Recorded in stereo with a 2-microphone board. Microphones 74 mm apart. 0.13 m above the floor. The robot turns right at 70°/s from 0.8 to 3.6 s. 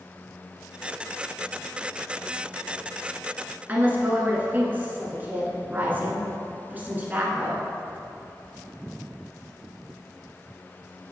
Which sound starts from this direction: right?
A woman speaking, at 3.7 s.